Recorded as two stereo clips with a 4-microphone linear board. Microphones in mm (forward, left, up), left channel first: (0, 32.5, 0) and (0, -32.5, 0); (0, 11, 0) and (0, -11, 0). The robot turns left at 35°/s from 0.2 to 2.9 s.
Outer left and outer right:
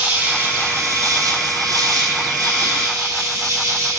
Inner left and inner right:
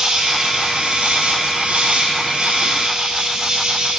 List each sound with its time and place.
0.0 s an insect: 25° right, 1.9 m; by 4.0 s 120° right, 1.9 m